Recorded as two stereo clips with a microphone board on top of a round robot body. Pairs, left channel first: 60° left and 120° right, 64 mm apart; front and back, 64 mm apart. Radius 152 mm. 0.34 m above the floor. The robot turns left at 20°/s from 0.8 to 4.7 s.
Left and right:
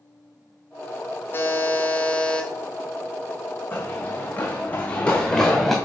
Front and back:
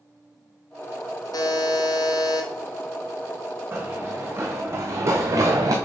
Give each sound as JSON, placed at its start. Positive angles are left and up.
{"t": 1.3, "sound": "a buzzer", "azimuth_deg": 5, "distance_m": 1.2}
{"t": 3.7, "sound": "running footsteps", "azimuth_deg": 120, "distance_m": 1.5}